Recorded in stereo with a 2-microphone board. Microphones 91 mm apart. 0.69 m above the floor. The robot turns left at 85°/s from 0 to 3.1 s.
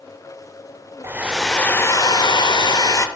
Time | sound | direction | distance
1.0 | a hair dryer | 145° right | 0.5 m